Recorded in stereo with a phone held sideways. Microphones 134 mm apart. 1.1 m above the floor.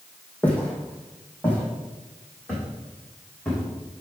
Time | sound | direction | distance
0.4 | footsteps | 10° left (ahead or behind) | 3 m